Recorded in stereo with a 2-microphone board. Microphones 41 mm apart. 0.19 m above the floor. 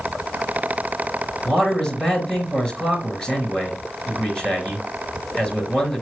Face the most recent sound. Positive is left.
turn(degrees=15)  # may be behind; listen again after turning